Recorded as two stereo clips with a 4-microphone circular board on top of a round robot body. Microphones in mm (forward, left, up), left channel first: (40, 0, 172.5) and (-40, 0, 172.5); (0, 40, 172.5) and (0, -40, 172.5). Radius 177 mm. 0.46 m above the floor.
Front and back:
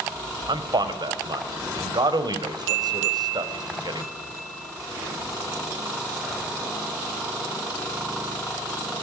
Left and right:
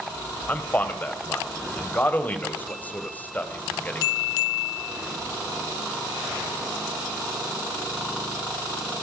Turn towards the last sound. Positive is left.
turn(degrees=160)